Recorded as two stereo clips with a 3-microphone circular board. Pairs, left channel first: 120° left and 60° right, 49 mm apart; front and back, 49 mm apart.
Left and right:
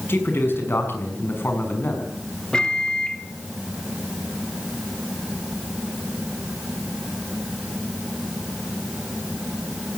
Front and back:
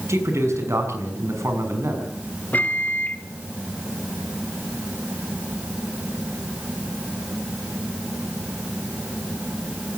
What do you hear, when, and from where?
0.1 s a man speaking: 165° left, 6 m
2.5 s a microwave: 50° left, 1.0 m